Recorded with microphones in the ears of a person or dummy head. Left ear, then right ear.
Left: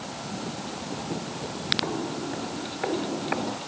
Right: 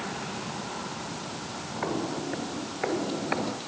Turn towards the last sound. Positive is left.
turn(degrees=-5)  # may be behind; listen again after turning